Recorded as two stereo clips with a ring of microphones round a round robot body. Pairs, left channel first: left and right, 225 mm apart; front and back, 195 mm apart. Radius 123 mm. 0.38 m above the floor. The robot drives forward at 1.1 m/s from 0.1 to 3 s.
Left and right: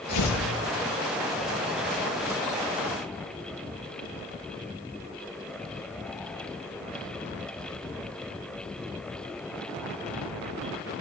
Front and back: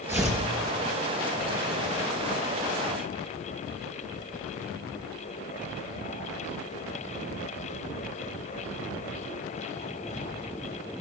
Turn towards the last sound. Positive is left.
turn(degrees=130)